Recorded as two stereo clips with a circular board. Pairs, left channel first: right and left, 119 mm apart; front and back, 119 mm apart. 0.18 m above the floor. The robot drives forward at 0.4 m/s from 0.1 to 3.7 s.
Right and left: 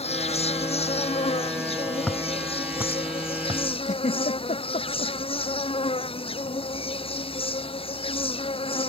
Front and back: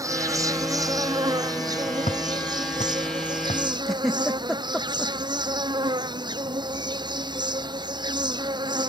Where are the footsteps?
5° right; by 3.6 s 30° left.